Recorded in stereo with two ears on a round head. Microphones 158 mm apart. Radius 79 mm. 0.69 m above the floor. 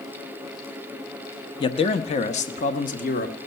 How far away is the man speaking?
About 0.9 m.